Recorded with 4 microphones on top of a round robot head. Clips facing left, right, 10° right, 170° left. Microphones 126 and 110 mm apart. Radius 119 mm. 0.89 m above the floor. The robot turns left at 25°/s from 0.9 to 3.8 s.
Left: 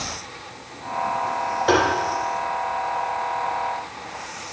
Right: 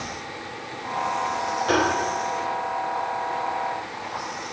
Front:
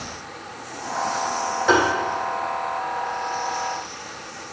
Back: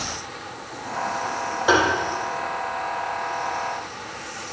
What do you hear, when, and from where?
1.7 s tapping: 85° left, 4 m; by 1.8 s 80° left, 4 m